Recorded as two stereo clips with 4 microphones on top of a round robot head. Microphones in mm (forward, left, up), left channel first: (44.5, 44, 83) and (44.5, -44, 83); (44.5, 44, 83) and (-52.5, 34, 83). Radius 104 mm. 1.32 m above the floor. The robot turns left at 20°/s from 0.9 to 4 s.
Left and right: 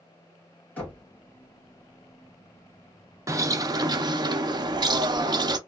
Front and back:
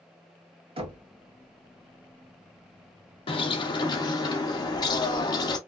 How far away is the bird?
About 0.6 m.